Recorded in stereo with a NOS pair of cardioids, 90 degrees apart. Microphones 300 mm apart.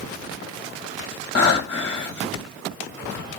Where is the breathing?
40° left, 1.3 m.